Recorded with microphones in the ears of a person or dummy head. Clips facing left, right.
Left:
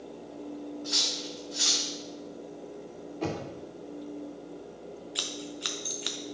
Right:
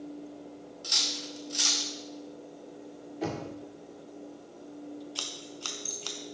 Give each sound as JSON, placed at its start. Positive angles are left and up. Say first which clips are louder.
{"t": 0.8, "sound": "cutlery clinking", "louder": "left 4 dB", "side_deg": -40, "distance_m": 0.6}
{"t": 3.2, "sound": "knocking", "louder": "left 1 dB", "side_deg": -5, "distance_m": 1.5}
{"t": 5.2, "sound": "scissors", "louder": "left 5 dB", "side_deg": 20, "distance_m": 0.6}